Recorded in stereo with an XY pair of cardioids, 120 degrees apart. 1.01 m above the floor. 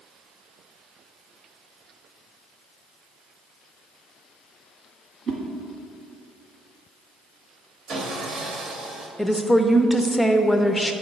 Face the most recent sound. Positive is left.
turn(degrees=5)